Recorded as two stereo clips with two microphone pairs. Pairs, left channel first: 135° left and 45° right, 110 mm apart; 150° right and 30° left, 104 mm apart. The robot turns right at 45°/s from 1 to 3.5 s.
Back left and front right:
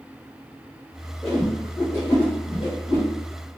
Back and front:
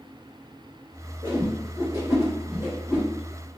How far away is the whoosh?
About 1.9 m.